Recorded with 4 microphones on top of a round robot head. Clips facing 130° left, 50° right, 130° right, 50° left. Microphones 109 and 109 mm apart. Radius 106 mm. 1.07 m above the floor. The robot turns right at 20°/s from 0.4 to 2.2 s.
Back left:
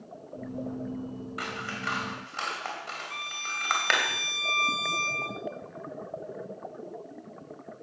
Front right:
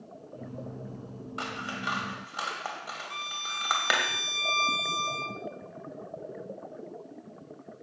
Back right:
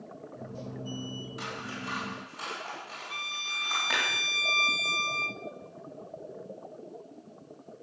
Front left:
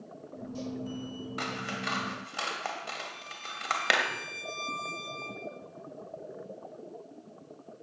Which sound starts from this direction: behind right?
A violin, at 3.1 s.